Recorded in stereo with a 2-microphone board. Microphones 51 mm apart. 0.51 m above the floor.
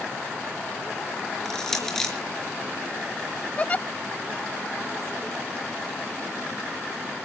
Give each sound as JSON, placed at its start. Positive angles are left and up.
{"t": 1.4, "sound": "crushing", "side_deg": 10, "distance_m": 4.5}
{"t": 3.6, "sound": "a giggle", "side_deg": 30, "distance_m": 0.5}